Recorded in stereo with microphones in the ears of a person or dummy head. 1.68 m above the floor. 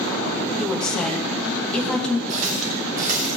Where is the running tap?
45° right (ahead or behind), 2.5 m.